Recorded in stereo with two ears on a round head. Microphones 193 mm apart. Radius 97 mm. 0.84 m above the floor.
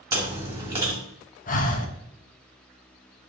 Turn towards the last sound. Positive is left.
turn(degrees=40)  # may be behind; listen again after turning